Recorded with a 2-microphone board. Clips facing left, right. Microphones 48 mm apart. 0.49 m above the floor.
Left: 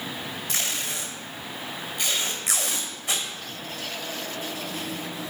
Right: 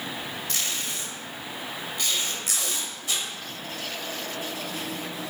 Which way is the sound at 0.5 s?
25° left (ahead or behind).